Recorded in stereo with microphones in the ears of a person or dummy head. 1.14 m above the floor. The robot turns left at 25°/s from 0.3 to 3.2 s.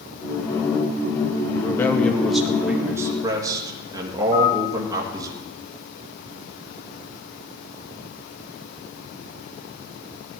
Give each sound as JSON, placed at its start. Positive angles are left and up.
{"t": 1.6, "sound": "a man speaking", "azimuth_deg": 20, "distance_m": 1.9}
{"t": 4.3, "sound": "a piano", "side_deg": 30, "distance_m": 7.5}